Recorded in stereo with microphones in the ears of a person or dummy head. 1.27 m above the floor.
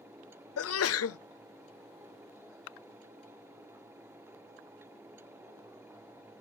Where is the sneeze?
65° left (ahead or behind), 0.6 m.